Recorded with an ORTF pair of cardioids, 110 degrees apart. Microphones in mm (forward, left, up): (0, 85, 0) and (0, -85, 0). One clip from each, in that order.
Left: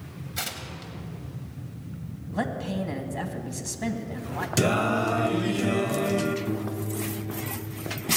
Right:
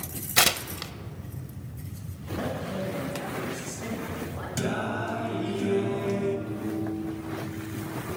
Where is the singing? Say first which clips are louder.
Left 6 dB; 50° left, 0.8 m.